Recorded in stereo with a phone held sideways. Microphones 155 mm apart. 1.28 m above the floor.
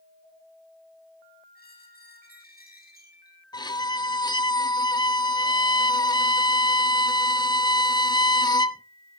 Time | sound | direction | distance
1.6 | a squeak | 85° left | 5 m
3.5 | a violin | 30° left (ahead or behind) | 0.7 m